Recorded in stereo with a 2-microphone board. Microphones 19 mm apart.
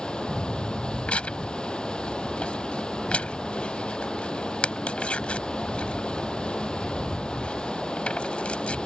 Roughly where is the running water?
Left.